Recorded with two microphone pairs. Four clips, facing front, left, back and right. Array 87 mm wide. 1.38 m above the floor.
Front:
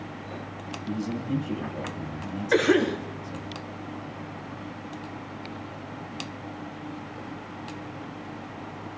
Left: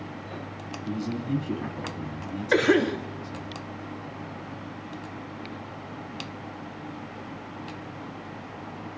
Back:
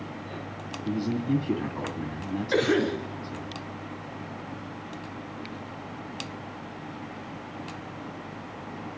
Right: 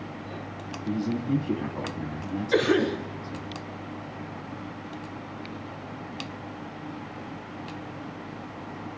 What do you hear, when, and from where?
0.8 s a man speaking: 155° right, 2.5 m
2.5 s a cough: 70° left, 2.5 m